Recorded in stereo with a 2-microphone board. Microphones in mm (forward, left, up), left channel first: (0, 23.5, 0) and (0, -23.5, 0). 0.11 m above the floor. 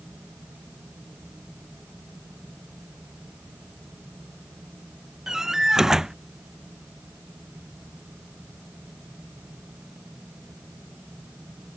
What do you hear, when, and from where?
5.3 s a door slam: 10° right (ahead or behind)